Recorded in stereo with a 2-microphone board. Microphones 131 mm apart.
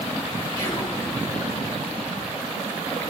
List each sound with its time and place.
0.6 s whispering: 30° left (ahead or behind), 1.9 m